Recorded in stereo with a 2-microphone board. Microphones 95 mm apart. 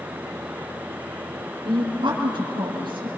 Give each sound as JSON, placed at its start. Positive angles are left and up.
{"t": 1.6, "sound": "a woman speaking", "side_deg": -65, "distance_m": 5.0}